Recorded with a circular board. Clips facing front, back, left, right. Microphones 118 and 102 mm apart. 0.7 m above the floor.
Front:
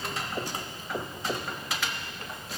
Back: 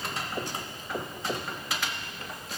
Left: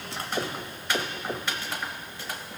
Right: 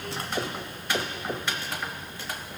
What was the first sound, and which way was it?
Only background noise.